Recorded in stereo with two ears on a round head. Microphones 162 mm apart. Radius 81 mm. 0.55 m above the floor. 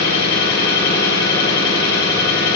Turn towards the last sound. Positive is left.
turn(degrees=60)  # may be behind; listen again after turning